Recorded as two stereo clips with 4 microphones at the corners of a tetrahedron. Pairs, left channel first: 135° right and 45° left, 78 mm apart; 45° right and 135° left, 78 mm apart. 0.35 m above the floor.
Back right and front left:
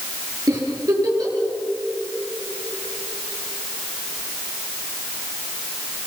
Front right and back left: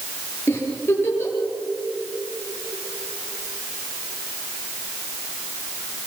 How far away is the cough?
No cough in this recording.